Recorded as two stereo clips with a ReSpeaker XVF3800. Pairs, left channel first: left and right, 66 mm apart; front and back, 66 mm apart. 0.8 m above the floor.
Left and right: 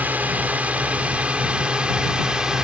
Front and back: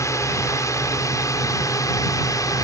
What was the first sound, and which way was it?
A drone, 30° right.